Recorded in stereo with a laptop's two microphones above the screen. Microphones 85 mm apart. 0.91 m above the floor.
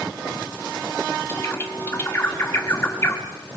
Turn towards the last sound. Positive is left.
turn(degrees=30)  # may be behind; listen again after turning